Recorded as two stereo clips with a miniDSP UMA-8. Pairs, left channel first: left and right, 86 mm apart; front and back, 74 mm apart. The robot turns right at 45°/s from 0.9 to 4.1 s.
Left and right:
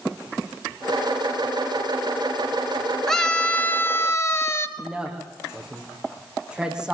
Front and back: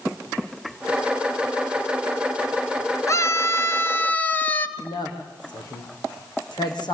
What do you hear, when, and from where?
3.1 s a scream: 5° left, 1.8 m; by 4.7 s 55° left, 1.8 m
4.8 s a woman speaking: 10° right, 6.5 m